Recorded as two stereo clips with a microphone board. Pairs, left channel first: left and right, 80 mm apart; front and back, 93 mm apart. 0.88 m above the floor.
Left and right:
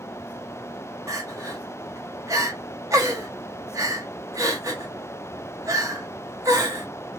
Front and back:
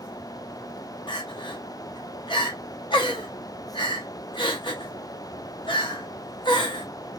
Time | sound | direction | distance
1.1 | crying | 35° right | 1.0 m